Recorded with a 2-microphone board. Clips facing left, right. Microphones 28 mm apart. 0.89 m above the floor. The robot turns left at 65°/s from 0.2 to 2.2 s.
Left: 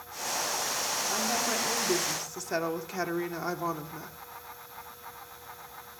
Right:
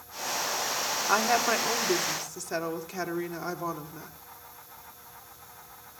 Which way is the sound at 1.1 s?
115° right.